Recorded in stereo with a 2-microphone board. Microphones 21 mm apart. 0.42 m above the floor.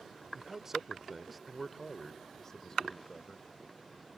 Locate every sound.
0.3 s a man speaking: 25° right (ahead or behind); by 3.5 s 40° left (ahead or behind)